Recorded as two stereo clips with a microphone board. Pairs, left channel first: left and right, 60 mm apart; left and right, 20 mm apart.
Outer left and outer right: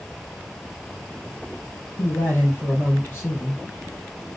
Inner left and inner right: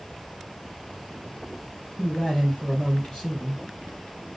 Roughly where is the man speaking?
Left.